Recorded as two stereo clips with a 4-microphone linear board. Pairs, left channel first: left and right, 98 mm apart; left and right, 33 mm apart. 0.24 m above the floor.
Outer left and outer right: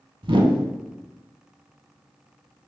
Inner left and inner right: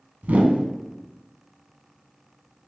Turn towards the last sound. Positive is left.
turn(degrees=-65)  # may be behind; listen again after turning